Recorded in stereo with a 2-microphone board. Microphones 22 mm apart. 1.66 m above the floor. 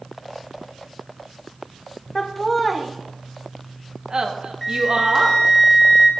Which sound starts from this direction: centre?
A flute, at 4.6 s.